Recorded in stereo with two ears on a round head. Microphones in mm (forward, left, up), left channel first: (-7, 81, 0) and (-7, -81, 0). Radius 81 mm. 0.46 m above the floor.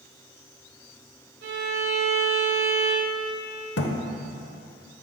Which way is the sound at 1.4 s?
65° right (ahead or behind).